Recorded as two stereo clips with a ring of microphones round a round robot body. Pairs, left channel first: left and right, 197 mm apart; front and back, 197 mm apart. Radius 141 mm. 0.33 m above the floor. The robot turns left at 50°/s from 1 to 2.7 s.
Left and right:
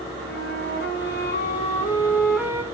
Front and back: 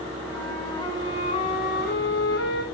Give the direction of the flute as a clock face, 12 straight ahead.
10 o'clock.